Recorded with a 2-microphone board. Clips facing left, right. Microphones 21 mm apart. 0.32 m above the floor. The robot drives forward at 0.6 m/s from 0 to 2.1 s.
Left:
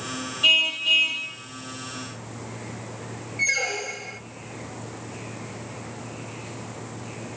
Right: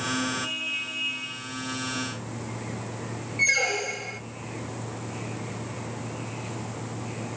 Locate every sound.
0.4 s a car horn: 75° left (ahead or behind), 5 m; by 1.3 s 70° left (ahead or behind), 5.5 m
3.4 s a squeak: 10° right (ahead or behind), 0.7 m